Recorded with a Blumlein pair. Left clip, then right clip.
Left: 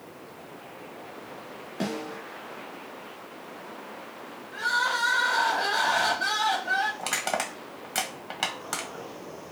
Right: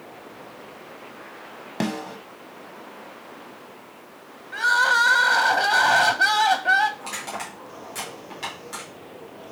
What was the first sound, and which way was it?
A snare drum, 60° right.